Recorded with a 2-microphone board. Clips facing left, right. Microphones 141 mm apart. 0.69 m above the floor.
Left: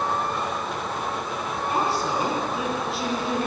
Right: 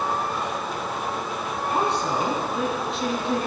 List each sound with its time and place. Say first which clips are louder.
1.7 s a woman speaking: right 1 dB; 5° left (ahead or behind), 6.5 m